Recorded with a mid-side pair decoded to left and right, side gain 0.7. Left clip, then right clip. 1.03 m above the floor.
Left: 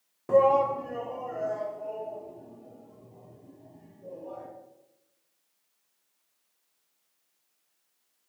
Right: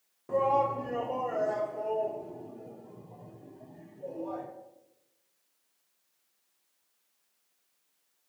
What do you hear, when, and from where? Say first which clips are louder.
0.3 s a shout: left 5 dB; 35° left, 0.7 m; by 4.5 s 50° right, 4.5 m